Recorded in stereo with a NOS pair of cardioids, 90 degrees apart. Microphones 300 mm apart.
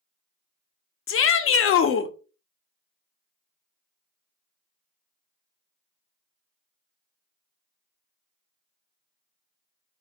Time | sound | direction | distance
1.1 | a shout | 45° left | 0.5 m